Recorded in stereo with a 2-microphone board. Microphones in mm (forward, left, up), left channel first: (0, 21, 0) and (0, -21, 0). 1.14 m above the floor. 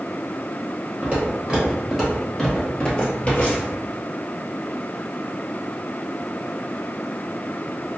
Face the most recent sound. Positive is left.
turn(degrees=40)  # may be behind; listen again after turning